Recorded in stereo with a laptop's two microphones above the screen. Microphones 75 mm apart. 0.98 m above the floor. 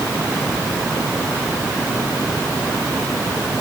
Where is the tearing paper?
No tearing paper in this recording.